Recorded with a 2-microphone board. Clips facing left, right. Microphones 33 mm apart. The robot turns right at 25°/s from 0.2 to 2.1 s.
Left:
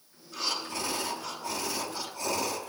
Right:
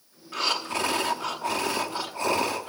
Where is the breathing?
95° right, 1.1 m; by 2.7 s 50° right, 1.1 m.